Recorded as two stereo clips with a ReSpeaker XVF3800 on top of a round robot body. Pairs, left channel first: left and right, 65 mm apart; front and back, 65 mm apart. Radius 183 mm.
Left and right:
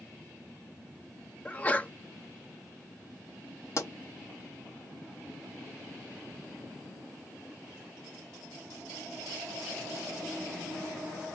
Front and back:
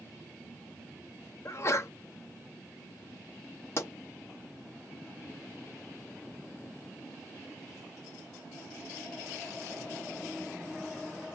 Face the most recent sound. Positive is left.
turn(degrees=50)